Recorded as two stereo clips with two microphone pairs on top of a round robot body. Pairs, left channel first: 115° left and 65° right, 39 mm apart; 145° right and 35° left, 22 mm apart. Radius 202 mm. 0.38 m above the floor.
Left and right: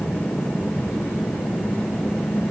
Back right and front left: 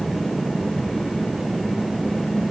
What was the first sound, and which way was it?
Only background noise.